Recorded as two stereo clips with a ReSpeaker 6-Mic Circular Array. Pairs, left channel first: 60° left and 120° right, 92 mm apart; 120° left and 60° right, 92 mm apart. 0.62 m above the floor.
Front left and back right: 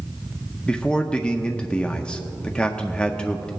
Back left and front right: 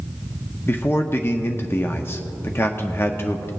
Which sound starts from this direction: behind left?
A man speaking, at 0.7 s.